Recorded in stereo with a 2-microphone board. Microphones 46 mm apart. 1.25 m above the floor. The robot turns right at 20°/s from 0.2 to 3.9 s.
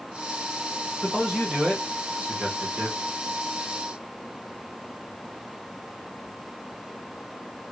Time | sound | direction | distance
1.0 | a man speaking | straight behind | 1.8 m